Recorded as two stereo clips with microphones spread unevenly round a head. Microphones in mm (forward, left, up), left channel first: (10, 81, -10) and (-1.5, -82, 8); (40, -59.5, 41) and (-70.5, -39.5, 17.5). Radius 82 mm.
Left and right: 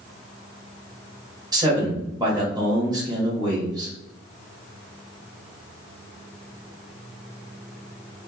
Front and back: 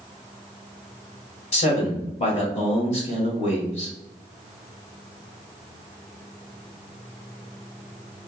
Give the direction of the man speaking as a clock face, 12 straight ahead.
1 o'clock.